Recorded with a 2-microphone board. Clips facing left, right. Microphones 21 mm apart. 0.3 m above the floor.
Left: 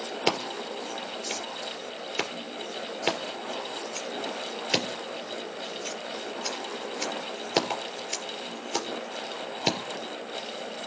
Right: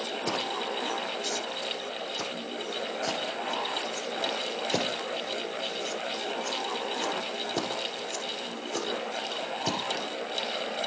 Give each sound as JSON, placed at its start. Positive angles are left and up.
{"t": 0.3, "sound": "scissors", "side_deg": 75, "distance_m": 4.0}